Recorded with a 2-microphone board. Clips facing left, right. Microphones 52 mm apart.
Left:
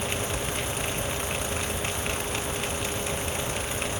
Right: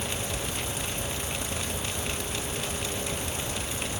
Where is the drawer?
I don't hear a drawer.